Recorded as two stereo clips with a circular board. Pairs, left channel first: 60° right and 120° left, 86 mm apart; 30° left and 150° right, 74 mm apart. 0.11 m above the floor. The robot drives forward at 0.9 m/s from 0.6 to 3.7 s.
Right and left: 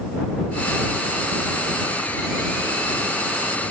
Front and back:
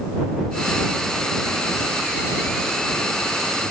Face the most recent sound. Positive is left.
No sound to turn to.